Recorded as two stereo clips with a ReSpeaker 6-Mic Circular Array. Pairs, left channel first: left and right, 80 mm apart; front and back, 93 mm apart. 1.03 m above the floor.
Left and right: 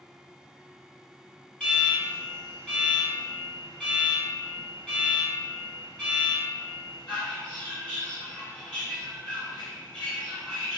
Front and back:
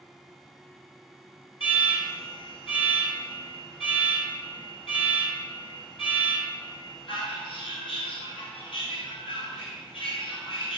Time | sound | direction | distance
1.6 | an alarm | 15° left | 3.5 m